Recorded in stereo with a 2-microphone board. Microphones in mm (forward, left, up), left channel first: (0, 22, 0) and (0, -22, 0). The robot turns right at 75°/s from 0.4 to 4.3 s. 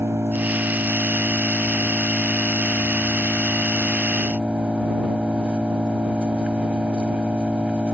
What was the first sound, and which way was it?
An engine running, 85° right.